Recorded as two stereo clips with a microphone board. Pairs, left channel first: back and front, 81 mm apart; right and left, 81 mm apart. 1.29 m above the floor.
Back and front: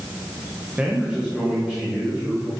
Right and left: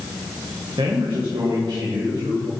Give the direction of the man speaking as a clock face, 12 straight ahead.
9 o'clock.